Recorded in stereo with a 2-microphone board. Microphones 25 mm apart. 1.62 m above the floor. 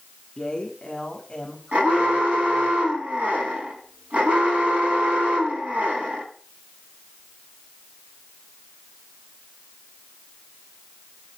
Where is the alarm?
70° right (ahead or behind), 6.5 m.